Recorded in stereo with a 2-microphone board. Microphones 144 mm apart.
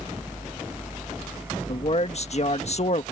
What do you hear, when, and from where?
1.7 s a man speaking: 50° left (ahead or behind)